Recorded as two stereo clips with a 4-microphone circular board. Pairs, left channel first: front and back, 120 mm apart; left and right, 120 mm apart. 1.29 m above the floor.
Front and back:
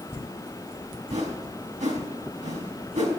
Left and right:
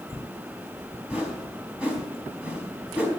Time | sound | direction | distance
1.1 | a whoosh | 170° right | 4.5 m